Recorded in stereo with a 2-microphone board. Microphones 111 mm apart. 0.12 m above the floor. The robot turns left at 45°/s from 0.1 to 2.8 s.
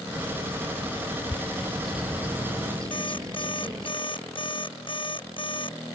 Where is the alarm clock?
50° left (ahead or behind).